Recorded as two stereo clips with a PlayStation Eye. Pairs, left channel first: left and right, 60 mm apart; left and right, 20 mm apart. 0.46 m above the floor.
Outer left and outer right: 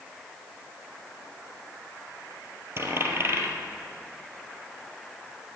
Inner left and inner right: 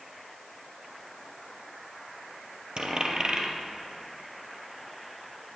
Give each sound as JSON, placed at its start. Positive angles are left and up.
{"t": 2.8, "sound": "a dropped coin", "side_deg": -45, "distance_m": 2.0}